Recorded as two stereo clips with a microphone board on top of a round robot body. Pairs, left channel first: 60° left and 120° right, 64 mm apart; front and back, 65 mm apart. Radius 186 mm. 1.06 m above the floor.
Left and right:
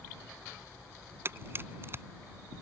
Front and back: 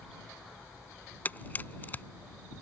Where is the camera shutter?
60° right.